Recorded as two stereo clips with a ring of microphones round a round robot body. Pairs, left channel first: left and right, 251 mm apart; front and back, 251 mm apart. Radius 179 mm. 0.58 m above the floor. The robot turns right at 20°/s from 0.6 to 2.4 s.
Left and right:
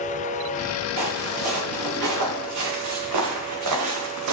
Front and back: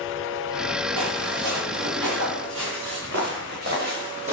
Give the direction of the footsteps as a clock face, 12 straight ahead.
5 o'clock.